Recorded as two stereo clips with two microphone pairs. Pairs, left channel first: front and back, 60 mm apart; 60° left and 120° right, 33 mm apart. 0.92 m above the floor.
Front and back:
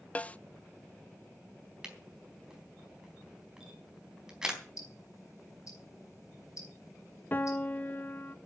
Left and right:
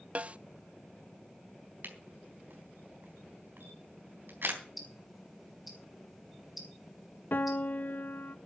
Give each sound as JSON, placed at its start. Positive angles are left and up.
{"t": 0.1, "sound": "a snare drum", "azimuth_deg": -65, "distance_m": 0.6}
{"t": 1.8, "sound": "a camera shutter", "azimuth_deg": -100, "distance_m": 3.5}
{"t": 4.8, "sound": "ticking", "azimuth_deg": -30, "distance_m": 5.0}
{"t": 7.3, "sound": "a piano", "azimuth_deg": 50, "distance_m": 0.7}